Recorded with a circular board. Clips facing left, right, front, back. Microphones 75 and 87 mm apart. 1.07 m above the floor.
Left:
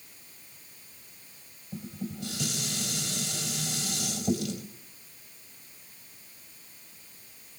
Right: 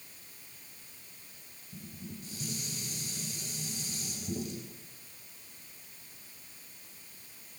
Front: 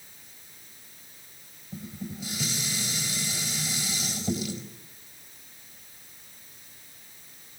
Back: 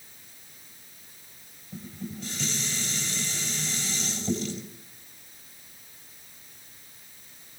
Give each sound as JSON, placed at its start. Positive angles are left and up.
{"t": 1.7, "sound": "dishes clattering", "azimuth_deg": 85, "distance_m": 4.0}